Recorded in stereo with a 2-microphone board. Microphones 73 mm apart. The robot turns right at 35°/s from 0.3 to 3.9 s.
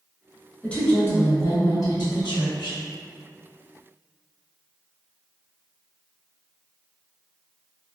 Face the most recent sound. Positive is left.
turn(degrees=130)